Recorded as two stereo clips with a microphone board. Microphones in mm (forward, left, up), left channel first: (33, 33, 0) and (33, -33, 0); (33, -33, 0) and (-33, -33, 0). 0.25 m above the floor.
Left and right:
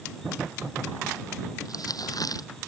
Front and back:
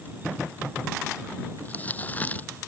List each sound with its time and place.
1.6 s crumpling: 65° left